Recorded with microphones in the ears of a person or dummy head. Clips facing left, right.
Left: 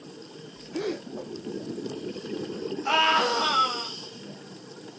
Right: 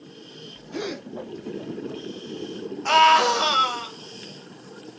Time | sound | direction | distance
0.7 | a gasp | 70° right (ahead or behind) | 2.5 m
2.9 | a scream | 60° right (ahead or behind) | 1.6 m